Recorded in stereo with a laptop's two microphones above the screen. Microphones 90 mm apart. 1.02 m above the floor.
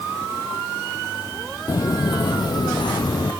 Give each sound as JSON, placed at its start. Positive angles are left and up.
{"t": 1.7, "sound": "footsteps", "side_deg": 45, "distance_m": 1.5}